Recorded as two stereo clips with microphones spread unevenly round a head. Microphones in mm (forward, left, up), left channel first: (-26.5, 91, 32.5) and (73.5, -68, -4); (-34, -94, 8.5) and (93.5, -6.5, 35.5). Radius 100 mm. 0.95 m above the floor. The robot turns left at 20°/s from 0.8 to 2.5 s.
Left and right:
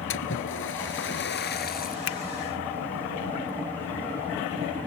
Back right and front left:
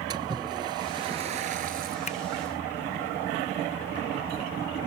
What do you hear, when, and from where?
0.1 s a splash: 105° left; by 2.0 s 80° left
2.1 s a finger snap: 160° left